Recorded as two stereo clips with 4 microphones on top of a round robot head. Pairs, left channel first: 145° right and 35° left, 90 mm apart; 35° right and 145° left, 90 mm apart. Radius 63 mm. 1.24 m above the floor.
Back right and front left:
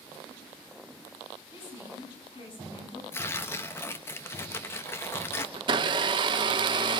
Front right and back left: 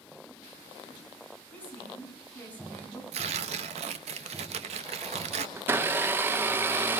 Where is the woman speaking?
110° right, 9.5 m.